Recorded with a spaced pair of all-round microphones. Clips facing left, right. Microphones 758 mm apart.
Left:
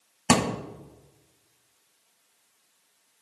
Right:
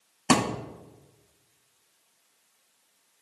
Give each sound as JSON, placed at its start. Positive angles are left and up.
{"t": 0.3, "sound": "a thud", "side_deg": 25, "distance_m": 0.6}